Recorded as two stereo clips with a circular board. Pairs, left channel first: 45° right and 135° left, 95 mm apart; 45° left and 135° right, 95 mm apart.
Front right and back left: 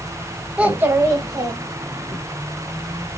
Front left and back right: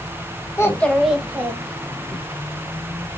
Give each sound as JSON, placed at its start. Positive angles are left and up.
{"t": 0.6, "sound": "a child speaking", "azimuth_deg": 70, "distance_m": 0.6}